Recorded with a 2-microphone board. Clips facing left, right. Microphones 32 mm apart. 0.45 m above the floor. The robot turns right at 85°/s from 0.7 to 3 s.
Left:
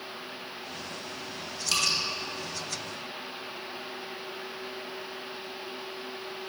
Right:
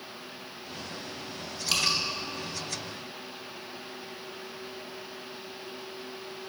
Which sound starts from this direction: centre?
Dripping, at 1.7 s.